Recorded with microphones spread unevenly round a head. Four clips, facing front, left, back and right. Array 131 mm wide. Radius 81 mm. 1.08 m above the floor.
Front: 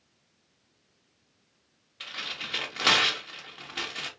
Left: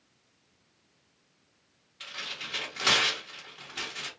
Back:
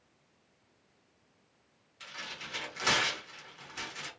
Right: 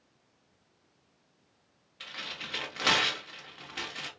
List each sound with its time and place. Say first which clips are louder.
2.0 s tearing paper: left 1 dB, front 5 dB; 5° right, 1.3 m